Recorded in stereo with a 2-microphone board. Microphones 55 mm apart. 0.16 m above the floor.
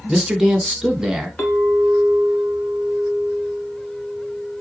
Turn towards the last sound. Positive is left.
turn(degrees=20)  # may be behind; listen again after turning